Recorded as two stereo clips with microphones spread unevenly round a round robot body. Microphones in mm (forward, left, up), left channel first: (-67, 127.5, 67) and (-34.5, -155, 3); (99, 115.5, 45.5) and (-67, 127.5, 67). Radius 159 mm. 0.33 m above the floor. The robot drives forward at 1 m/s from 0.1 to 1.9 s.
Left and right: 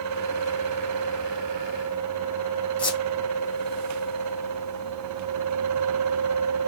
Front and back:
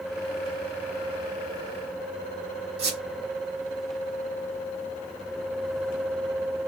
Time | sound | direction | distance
2.8 | a squeak | straight behind | 3 m